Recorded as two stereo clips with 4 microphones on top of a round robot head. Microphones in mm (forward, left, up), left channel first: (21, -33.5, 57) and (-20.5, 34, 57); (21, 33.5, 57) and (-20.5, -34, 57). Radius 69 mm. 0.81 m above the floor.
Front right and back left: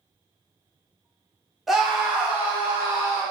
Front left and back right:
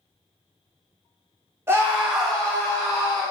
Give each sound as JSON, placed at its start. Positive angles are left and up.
{"t": 1.7, "sound": "a scream", "azimuth_deg": -150, "distance_m": 0.9}